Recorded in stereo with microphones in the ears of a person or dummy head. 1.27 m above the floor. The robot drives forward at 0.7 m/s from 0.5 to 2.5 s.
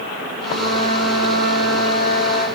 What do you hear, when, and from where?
0.3 s a flute: 65° right (ahead or behind), 5 m; by 2.5 s 55° right (ahead or behind), 5.5 m